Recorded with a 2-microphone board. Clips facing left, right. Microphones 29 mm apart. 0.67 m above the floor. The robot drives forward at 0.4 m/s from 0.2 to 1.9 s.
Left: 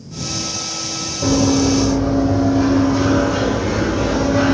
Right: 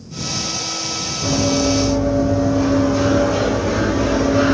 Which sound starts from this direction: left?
Running footsteps, at 1.2 s.